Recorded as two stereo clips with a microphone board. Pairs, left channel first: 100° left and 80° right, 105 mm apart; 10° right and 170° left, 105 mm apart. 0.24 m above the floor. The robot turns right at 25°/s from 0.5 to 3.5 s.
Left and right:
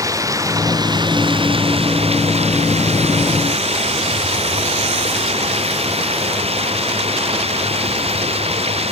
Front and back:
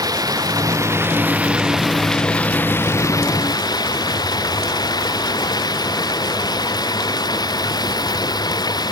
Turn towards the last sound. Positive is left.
turn(degrees=-60)